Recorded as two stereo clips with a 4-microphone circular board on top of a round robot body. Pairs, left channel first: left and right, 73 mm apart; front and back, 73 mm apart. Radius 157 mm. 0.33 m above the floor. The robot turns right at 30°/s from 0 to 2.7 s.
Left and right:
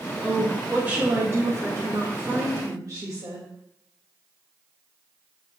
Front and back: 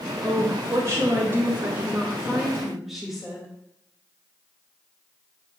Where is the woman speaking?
170° right, 2.0 m; by 3.5 s 95° right, 2.0 m.